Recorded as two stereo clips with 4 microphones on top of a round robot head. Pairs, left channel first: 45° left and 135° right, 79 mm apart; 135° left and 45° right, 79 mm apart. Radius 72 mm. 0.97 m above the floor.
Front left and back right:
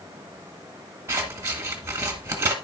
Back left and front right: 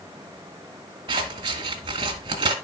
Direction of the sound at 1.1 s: 75° right.